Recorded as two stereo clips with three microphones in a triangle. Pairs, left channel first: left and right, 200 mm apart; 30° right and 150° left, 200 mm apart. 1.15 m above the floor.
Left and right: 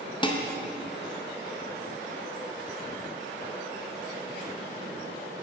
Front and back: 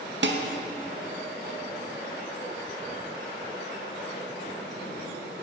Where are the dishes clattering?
150° left, 0.5 m.